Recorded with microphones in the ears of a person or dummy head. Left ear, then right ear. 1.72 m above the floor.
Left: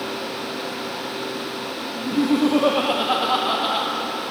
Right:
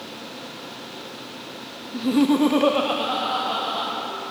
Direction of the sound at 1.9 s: 65° right (ahead or behind).